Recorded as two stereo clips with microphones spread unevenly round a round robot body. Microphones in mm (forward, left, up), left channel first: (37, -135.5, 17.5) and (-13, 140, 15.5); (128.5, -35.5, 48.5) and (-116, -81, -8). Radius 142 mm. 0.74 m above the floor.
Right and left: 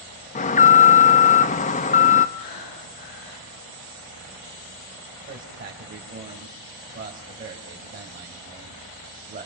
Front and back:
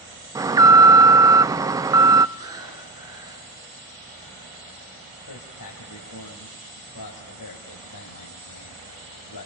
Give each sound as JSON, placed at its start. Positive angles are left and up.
{"t": 0.3, "sound": "an alarm", "azimuth_deg": -125, "distance_m": 0.7}
{"t": 2.4, "sound": "breathing", "azimuth_deg": -95, "distance_m": 5.5}
{"t": 5.3, "sound": "a man speaking", "azimuth_deg": 40, "distance_m": 3.5}